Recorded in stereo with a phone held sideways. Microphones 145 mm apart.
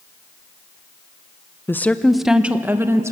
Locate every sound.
1.7 s a woman speaking: 15° left (ahead or behind), 0.7 m; by 3.1 s 20° right (ahead or behind), 1.2 m